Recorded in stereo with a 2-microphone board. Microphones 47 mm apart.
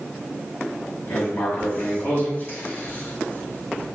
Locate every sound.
1.1 s writing: 50° left (ahead or behind), 6 m